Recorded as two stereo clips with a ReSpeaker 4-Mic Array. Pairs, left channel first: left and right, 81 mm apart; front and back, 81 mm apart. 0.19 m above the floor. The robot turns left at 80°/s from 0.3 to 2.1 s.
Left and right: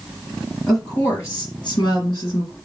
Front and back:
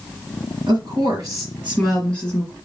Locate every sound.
0.7 s a woman speaking: 175° right, 4 m; by 2.5 s 70° left, 4 m